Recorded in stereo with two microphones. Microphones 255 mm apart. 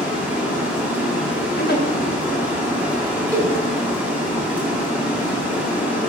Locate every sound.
0.0 s running water: 5° right (ahead or behind), 2.0 m
1.6 s a giggle: 35° left (ahead or behind), 0.9 m
3.3 s a cowbell: 5° left (ahead or behind), 1.8 m